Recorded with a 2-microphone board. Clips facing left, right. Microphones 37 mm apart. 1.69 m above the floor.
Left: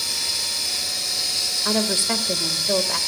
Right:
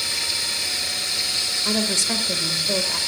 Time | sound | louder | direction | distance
0.0 | running water | right 1 dB | 35° right (ahead or behind) | 9.5 m
1.6 | a woman speaking | left 2 dB | 25° left (ahead or behind) | 2 m